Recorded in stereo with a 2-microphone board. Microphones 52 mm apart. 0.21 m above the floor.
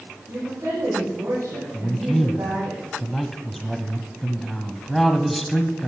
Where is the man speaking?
Centre (ahead or behind), 1.1 m.